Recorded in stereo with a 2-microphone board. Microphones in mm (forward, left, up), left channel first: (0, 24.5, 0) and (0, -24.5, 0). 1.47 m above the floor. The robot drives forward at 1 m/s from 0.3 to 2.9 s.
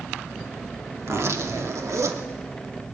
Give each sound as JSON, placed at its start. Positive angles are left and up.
{"t": 1.0, "sound": "a zipper", "side_deg": -60, "distance_m": 3.0}